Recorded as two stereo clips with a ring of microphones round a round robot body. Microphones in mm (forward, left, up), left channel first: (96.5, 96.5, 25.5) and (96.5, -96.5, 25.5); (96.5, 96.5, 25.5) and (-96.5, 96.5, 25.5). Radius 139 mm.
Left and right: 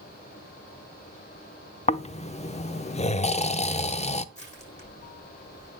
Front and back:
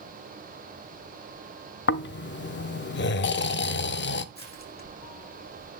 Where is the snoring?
30° left, 0.7 m.